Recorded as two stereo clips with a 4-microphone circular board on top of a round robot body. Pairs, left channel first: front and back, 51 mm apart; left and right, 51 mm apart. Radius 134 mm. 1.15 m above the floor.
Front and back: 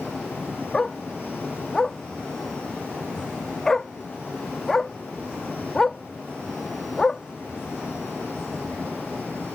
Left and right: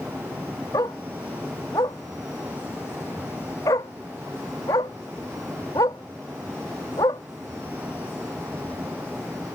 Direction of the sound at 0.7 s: 80° left.